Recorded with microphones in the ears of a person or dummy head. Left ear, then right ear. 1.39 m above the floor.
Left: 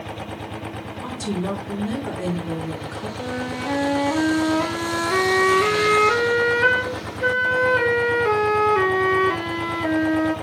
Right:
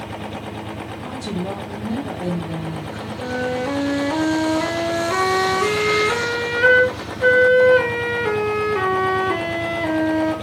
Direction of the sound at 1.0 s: 55° left (ahead or behind).